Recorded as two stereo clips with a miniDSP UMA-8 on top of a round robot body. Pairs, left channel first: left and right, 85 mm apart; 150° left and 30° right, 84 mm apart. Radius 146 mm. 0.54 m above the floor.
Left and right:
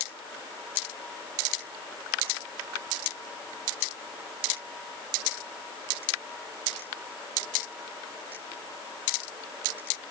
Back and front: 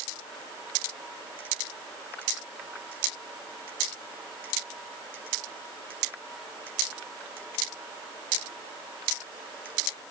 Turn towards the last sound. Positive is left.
No sound to turn to.